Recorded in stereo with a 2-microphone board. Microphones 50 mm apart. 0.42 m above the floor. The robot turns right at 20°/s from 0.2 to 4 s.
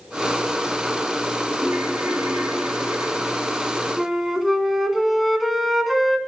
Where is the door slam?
I don't hear a door slam.